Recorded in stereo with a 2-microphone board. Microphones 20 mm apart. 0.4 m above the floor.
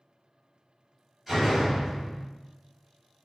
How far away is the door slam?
About 1.8 m.